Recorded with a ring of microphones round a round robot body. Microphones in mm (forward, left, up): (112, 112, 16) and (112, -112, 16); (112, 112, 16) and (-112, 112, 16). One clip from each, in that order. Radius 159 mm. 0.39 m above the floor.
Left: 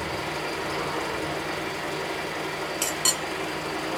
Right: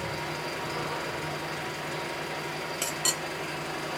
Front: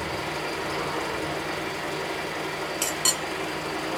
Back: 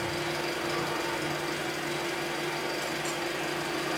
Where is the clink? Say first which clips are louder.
Left 4 dB, front 6 dB; straight ahead, 0.6 m.